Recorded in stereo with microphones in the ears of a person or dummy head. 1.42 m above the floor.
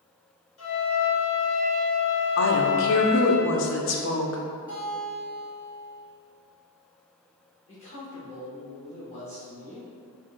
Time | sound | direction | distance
0.6 | a flute | 70° left (ahead or behind) | 1.5 m
2.4 | a woman speaking | 65° left (ahead or behind) | 0.7 m
4.7 | a guitar | 20° left (ahead or behind) | 1.9 m
7.7 | a man speaking | 35° left (ahead or behind) | 1.2 m